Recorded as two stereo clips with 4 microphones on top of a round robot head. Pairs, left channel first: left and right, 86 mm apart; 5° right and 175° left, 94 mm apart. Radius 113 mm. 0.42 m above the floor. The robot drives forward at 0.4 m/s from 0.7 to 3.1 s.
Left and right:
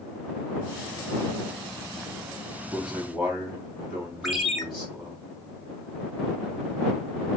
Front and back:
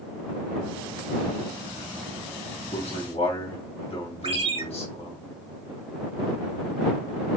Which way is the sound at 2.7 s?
5° right.